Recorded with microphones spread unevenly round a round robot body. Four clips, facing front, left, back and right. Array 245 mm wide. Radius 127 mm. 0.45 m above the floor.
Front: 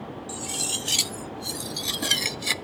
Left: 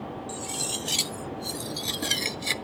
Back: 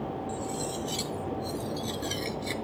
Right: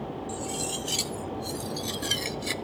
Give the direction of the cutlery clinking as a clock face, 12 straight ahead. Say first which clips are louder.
Right 2 dB, back 2 dB; 11 o'clock.